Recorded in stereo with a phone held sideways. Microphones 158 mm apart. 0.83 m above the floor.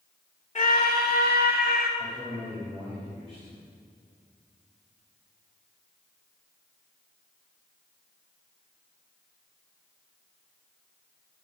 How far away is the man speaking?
About 4 m.